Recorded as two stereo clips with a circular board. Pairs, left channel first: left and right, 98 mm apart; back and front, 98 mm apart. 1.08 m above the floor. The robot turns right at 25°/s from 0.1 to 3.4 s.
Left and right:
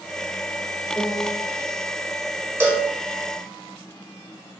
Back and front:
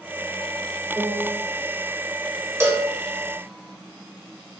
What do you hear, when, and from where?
0.9 s a piano: 60° left, 0.9 m; by 1.4 s 70° left, 0.9 m
2.6 s a cowbell: 40° right, 0.9 m; by 2.9 s 35° right, 0.9 m